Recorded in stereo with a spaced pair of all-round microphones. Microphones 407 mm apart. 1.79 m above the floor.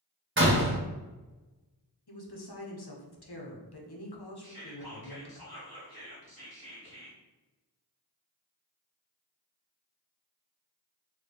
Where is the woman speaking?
65° left (ahead or behind), 0.8 m.